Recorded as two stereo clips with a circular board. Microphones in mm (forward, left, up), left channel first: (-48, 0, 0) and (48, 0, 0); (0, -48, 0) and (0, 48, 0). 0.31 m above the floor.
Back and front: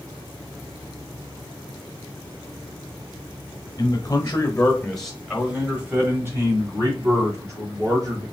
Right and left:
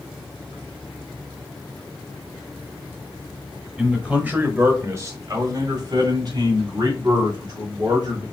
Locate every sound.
3.8 s a man speaking: 175° left, 1.2 m; by 8.2 s 45° left, 2.5 m